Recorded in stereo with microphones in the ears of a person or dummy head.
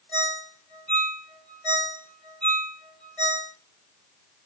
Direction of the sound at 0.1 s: Centre (ahead or behind).